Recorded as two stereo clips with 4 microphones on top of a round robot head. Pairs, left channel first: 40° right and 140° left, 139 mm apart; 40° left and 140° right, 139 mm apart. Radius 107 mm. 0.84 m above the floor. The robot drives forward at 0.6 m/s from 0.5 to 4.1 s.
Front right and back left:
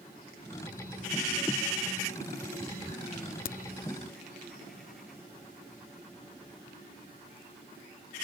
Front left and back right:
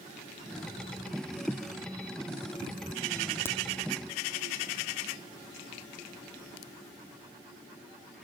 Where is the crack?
30° right; by 3.6 s 35° right.